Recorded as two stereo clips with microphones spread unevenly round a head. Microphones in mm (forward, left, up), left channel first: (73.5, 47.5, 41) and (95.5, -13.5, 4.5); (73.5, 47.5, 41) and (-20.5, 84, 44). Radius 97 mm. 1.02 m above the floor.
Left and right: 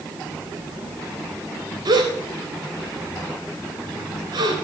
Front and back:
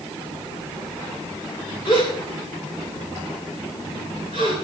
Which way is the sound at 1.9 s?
85° right.